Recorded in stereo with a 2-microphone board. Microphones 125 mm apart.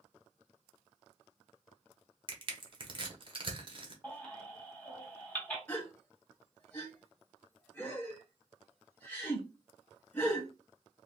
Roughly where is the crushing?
Right.